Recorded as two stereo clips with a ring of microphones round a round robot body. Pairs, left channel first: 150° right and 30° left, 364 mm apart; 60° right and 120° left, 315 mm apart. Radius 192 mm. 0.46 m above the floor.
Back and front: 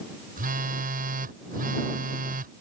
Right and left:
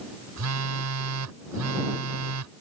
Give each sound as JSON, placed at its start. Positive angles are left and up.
{"t": 0.4, "sound": "a phone buzzing", "azimuth_deg": 95}